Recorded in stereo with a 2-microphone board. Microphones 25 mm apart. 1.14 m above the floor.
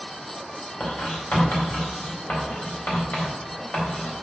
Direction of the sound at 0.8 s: 85° left.